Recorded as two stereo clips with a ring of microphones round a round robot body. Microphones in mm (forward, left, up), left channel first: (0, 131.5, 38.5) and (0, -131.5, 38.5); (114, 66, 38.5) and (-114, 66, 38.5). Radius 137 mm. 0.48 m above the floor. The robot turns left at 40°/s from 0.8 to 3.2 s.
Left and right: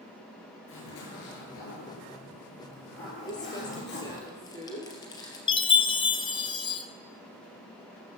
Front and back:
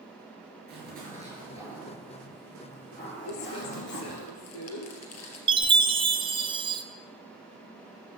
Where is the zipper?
135° left, 9 m; by 4.3 s 40° left, 9 m.